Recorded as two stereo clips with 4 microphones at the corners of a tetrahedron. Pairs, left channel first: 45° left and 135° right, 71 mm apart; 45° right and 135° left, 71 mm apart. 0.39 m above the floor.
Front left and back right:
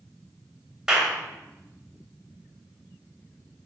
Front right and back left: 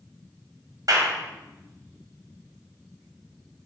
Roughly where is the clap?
Behind left.